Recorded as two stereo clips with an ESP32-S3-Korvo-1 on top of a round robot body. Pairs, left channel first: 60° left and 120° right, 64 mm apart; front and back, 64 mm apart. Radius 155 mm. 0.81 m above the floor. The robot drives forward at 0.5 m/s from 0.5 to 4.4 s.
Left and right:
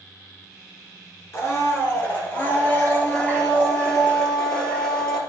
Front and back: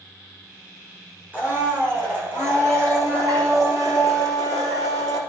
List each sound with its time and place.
1.3 s a blender: 110° left, 2.5 m; by 5.2 s 135° left, 3.5 m